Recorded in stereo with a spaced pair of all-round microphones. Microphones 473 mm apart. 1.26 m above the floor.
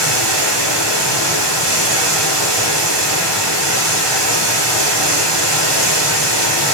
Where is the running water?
55° right (ahead or behind), 2 m.